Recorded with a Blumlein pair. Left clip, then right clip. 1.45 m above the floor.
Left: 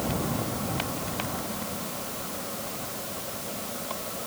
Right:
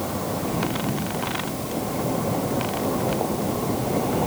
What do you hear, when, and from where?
Only background noise.